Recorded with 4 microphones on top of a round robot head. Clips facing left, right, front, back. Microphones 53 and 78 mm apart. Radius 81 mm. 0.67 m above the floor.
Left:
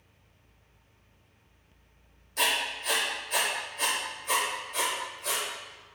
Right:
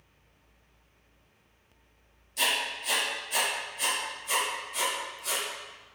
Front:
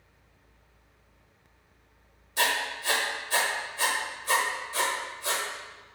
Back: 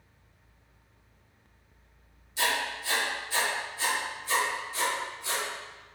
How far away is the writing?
About 0.8 m.